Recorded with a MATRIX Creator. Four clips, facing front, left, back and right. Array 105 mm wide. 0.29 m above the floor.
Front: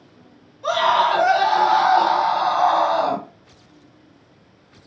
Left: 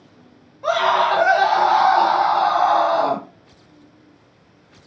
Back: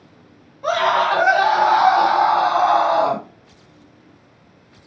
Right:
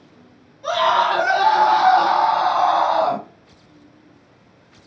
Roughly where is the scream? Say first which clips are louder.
Even, even; behind left.